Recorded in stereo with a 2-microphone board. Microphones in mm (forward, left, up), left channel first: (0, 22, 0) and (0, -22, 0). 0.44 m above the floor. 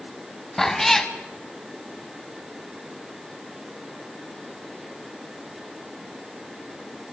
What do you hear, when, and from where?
0.6 s a cat meowing: 5° left (ahead or behind), 1.5 m